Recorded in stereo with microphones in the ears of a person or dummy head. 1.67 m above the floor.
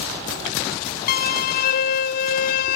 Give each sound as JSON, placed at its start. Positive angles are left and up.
{"t": 1.1, "sound": "a violin", "side_deg": 60, "distance_m": 0.6}